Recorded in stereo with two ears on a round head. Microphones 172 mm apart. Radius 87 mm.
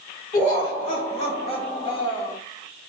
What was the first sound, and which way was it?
Laughter, 40° left (ahead or behind).